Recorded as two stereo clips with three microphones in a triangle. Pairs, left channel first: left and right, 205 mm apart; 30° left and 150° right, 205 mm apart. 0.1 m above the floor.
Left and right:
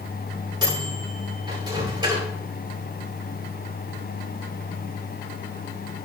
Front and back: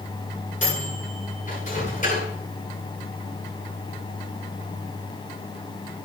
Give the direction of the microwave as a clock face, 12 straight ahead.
1 o'clock.